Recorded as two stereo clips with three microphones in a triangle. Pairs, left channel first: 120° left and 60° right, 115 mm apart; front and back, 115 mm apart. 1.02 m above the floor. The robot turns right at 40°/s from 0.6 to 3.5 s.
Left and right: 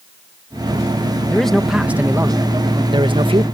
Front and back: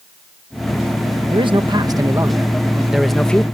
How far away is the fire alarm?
No fire alarm in this recording.